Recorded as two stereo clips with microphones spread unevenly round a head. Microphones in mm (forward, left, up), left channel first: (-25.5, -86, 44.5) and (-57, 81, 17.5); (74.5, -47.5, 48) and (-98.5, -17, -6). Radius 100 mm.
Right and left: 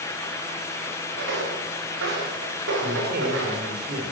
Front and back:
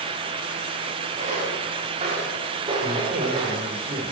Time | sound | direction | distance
1.2 | footsteps | 110° left | 9 m
2.8 | a man speaking | 125° left | 4 m